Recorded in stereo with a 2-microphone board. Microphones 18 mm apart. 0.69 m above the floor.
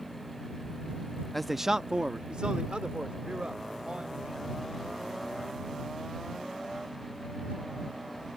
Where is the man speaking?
15° left (ahead or behind); by 4.6 s 80° right.